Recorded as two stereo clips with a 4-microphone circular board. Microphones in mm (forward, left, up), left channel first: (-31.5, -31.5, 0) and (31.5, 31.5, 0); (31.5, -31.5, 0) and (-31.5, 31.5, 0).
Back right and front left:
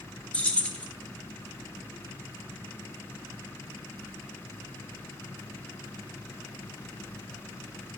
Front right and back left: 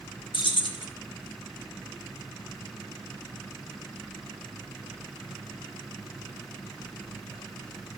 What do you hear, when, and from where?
0.3 s keys jangling: 60° right, 0.9 m